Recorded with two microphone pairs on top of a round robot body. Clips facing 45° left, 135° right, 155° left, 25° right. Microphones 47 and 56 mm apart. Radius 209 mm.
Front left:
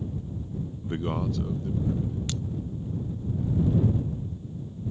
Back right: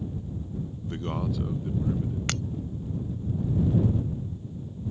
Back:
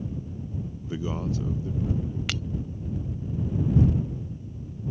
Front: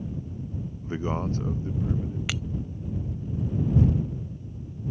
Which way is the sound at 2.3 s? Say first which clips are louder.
Back right 3 dB, even; 105° right.